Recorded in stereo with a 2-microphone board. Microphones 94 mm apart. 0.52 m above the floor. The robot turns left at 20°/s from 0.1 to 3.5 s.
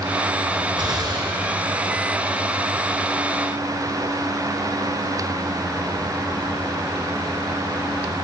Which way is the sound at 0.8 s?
60° right (ahead or behind).